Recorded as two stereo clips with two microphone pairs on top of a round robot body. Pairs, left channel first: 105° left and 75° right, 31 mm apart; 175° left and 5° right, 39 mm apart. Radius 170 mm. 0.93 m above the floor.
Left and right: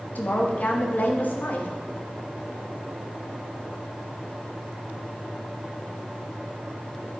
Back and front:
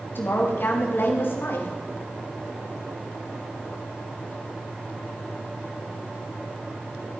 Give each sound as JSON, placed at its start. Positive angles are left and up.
{"t": 0.1, "sound": "a woman speaking", "azimuth_deg": 145, "distance_m": 1.5}